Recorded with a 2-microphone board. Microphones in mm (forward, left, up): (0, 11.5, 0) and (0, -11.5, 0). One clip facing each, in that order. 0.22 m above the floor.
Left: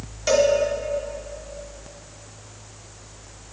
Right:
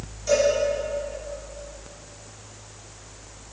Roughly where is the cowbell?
Left.